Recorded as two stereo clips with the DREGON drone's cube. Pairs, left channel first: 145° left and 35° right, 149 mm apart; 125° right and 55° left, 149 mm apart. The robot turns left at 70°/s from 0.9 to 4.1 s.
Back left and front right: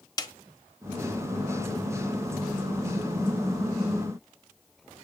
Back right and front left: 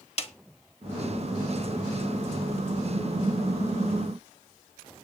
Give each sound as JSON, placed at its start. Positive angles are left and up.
{"t": 0.2, "sound": "a snare drum", "azimuth_deg": -155, "distance_m": 1.2}